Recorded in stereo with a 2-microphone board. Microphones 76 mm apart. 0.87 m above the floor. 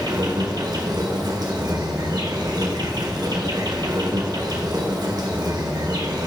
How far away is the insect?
About 1.5 m.